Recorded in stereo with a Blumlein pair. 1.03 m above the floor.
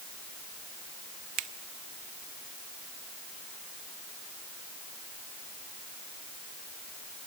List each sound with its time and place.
1.4 s a finger snap: 30° right, 1.2 m